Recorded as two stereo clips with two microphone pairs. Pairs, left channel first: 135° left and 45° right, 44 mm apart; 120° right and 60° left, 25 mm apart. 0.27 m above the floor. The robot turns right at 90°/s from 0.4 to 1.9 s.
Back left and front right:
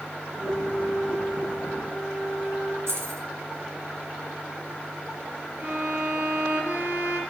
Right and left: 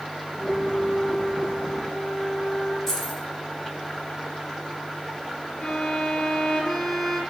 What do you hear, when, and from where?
0.4 s a flute: 150° left, 6.5 m; by 2.8 s 75° right, 6.5 m
2.9 s keys jangling: 45° right, 3.5 m
5.6 s a violin: 75° right, 5 m